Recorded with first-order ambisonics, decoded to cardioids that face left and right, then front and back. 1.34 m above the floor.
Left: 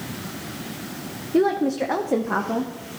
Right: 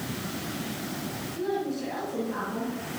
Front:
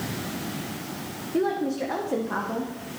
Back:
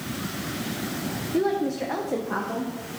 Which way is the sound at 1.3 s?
90° left.